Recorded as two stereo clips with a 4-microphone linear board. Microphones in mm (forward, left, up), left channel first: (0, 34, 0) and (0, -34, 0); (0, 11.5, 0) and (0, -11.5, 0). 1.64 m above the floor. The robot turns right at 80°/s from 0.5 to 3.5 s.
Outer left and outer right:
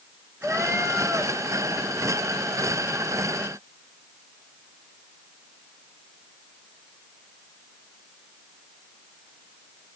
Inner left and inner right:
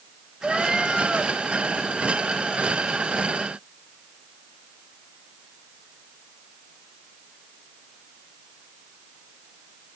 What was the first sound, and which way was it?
A cat meowing, 20° right (ahead or behind).